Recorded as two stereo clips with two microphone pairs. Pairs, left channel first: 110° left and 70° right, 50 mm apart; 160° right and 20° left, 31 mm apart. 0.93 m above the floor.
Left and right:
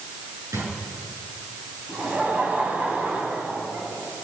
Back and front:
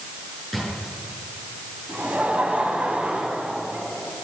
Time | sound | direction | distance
0.5 | a drawer | 70° right | 9 m
1.9 | laughter | 10° right | 6 m